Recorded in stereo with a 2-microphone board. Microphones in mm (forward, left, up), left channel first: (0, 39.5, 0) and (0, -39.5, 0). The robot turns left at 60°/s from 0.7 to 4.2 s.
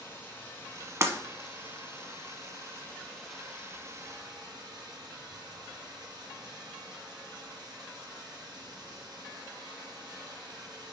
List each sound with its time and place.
0.0 s running water: 150° left, 3.5 m; by 10.9 s 60° right, 3.5 m
1.0 s breaking glass: 40° right (ahead or behind), 1.1 m; by 1.1 s 35° right (ahead or behind), 1.1 m